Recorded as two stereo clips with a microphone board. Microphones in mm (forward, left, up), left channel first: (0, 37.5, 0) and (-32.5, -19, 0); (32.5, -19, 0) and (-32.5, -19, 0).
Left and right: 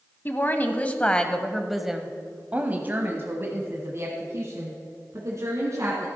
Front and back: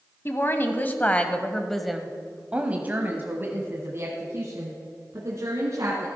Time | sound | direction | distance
0.2 | a woman speaking | 25° left | 1.2 m